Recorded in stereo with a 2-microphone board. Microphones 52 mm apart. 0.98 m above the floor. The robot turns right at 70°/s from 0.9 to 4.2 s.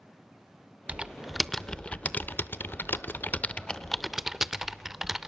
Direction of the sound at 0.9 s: 25° right (ahead or behind).